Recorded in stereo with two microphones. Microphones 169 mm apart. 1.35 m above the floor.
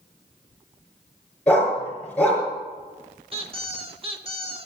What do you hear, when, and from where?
1.5 s a dog barking: 10° left (ahead or behind), 4.5 m
3.3 s a squeak: 35° right (ahead or behind), 1.0 m